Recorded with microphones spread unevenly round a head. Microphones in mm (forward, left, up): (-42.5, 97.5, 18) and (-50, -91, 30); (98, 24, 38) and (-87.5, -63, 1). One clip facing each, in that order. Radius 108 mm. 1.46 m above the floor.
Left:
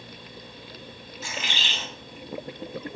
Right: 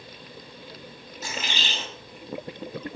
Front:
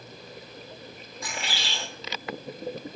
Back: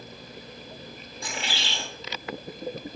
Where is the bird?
90° right, 1.0 m.